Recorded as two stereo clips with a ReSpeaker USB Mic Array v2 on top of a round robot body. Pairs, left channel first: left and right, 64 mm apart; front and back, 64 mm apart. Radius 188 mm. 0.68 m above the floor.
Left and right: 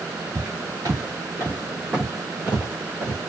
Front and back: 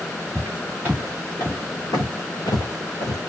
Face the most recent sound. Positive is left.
turn(degrees=0)